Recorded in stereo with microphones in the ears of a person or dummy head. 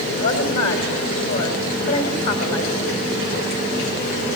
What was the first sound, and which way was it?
A woman speaking, 35° left (ahead or behind).